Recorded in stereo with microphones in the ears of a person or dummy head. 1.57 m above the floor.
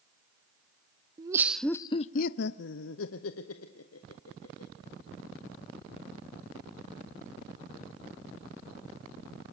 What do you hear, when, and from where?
1.2 s laughter: 20° right (ahead or behind), 0.6 m; by 4.7 s 80° left, 2.0 m